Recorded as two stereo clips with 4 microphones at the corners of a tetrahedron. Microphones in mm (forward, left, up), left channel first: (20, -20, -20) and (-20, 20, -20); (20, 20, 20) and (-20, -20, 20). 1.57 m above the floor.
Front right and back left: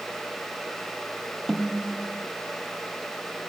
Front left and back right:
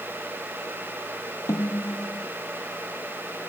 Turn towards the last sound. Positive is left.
turn(degrees=40)